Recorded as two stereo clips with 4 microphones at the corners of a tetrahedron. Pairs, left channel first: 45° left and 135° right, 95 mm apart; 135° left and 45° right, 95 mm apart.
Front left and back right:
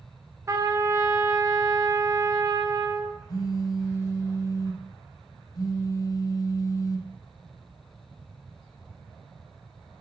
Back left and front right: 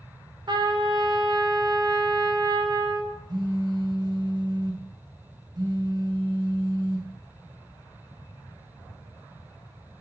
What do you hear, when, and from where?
0.5 s a trumpet: 80° right, 3 m
3.3 s a phone buzzing: straight ahead, 2.5 m